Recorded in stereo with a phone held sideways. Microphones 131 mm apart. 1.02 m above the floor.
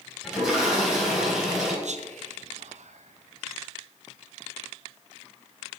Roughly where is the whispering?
Right.